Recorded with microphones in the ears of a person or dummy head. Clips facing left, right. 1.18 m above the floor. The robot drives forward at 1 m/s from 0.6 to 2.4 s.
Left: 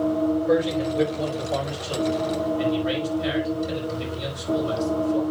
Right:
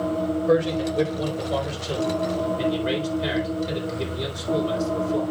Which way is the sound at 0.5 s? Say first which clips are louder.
Right 1 dB; 60° right (ahead or behind).